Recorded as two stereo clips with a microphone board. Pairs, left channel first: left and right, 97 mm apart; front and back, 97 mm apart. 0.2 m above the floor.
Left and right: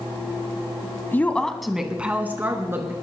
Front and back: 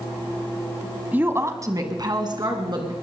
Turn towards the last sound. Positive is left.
turn(degrees=-150)